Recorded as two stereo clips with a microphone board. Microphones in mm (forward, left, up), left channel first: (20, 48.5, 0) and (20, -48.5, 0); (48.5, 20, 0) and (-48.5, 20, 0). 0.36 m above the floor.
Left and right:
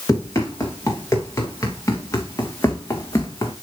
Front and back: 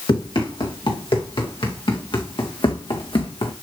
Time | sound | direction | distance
0.1 | running footsteps | 35° left | 4.5 m